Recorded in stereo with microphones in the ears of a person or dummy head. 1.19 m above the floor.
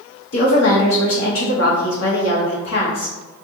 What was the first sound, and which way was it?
A woman speaking, 60° left (ahead or behind).